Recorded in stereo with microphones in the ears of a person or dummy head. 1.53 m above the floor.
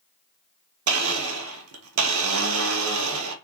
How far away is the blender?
About 0.6 m.